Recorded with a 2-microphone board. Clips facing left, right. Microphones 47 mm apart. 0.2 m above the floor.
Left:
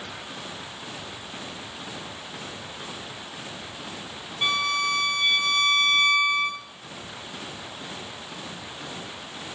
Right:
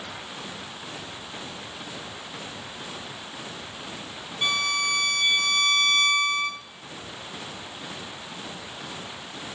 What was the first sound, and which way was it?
A violin, 5° left (ahead or behind).